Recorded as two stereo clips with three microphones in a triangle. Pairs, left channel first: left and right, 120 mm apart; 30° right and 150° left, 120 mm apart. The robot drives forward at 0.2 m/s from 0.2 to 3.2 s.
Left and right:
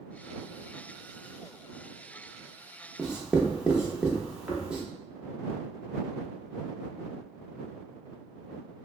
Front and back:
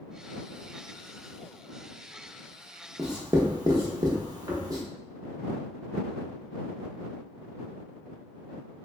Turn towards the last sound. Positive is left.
turn(degrees=-170)